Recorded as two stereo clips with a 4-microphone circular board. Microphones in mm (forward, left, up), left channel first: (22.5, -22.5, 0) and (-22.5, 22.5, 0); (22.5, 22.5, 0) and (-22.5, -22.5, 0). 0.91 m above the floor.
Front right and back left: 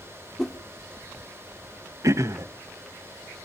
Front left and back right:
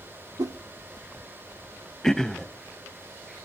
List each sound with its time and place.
0.4 s a whoosh: 135° right, 1.0 m
2.0 s throat clearing: 125° left, 0.8 m